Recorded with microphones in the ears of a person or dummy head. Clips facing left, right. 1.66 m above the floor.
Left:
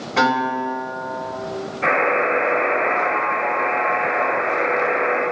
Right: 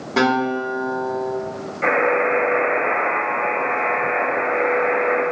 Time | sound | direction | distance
0.2 | a guitar | 70° right (ahead or behind) | 1.3 m
1.8 | a buzzer | 70° right (ahead or behind) | 1.0 m